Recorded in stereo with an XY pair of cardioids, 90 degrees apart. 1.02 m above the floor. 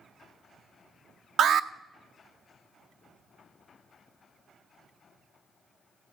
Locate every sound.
1.4 s an alarm: 70° right, 0.6 m